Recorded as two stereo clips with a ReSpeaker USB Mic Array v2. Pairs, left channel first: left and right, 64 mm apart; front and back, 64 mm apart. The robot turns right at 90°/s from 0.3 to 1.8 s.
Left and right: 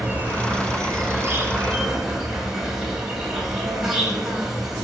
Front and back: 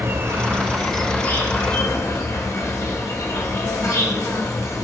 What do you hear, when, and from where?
0.0 s an insect: 145° right, 1.8 m; by 4.8 s 10° right, 1.8 m